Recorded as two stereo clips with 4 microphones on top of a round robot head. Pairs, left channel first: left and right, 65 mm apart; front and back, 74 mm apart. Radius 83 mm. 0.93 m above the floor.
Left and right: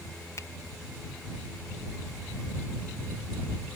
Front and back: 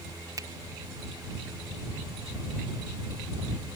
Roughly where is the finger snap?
Behind left.